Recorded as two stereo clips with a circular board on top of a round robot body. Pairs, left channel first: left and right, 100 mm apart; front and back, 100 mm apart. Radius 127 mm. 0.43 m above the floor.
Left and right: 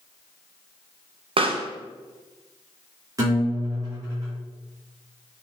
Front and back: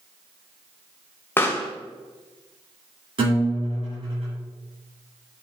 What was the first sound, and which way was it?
A pop, 70° right.